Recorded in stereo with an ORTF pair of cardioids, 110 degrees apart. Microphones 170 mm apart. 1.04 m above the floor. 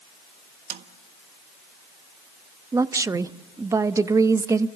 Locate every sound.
0.7 s a snare drum: 70° right, 1.6 m
2.7 s a woman speaking: 20° right, 0.9 m